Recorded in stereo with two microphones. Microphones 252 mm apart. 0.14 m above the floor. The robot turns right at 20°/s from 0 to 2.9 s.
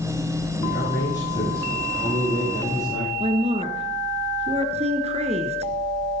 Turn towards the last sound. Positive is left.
turn(degrees=-25)  # may be behind; listen again after turning